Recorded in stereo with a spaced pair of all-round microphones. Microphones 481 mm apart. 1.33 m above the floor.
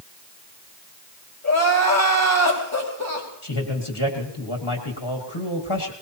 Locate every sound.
1.4 s crying: 35° left (ahead or behind), 3.5 m
3.4 s a man speaking: 55° left (ahead or behind), 1.8 m